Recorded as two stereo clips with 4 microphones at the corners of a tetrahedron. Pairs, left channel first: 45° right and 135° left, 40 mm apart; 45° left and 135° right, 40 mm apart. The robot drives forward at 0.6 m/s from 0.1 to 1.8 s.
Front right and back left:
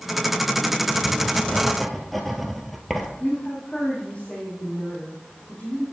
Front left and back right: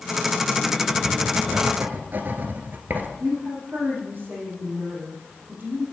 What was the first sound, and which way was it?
Writing, 105° right.